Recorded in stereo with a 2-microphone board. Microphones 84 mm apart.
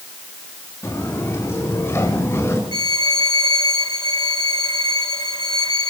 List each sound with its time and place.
0.8 s footsteps: 35° left (ahead or behind), 9.5 m; by 2.6 s 30° left (ahead or behind), 10 m
2.7 s a violin: 50° left (ahead or behind), 2.0 m